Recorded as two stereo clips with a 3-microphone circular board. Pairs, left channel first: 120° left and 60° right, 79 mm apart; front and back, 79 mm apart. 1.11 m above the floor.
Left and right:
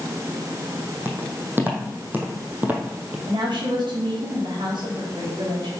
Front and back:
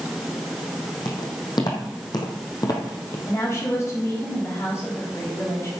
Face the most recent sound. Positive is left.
turn(degrees=-50)